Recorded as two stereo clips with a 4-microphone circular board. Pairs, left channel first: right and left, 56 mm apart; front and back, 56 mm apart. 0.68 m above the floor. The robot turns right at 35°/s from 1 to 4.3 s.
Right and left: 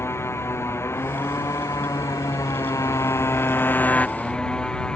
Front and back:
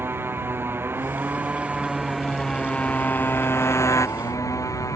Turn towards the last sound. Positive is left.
turn(degrees=-15)